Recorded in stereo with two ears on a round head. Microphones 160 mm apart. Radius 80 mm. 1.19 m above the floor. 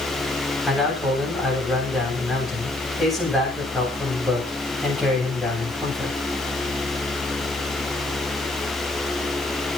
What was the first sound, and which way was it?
A man speaking, centre (ahead or behind).